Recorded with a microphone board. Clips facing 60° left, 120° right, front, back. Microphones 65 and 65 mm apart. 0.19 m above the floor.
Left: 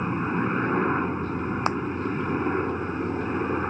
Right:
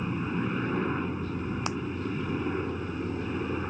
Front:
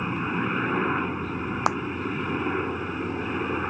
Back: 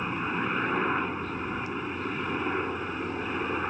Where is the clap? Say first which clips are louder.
Left 9 dB, front 10 dB; 10° left.